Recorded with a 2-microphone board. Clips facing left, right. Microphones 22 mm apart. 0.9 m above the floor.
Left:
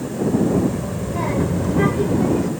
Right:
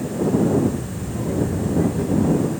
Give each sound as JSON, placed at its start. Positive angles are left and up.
{"t": 0.5, "sound": "a child speaking", "side_deg": 60}